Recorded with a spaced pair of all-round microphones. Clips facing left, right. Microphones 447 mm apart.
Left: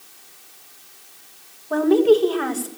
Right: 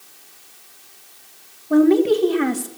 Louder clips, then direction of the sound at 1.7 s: Right 1 dB; 40° right (ahead or behind).